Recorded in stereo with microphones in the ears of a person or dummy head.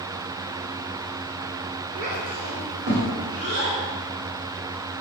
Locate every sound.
1.9 s a child speaking: 35° right (ahead or behind), 1.2 m; by 3.8 s 70° right (ahead or behind), 1.9 m